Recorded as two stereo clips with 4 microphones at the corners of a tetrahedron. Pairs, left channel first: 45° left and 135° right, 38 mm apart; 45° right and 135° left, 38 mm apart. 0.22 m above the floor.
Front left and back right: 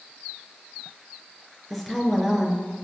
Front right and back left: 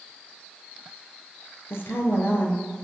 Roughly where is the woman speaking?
Ahead right.